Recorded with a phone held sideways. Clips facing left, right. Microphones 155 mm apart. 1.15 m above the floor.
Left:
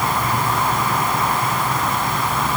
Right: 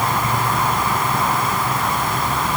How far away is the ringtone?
I don't hear a ringtone.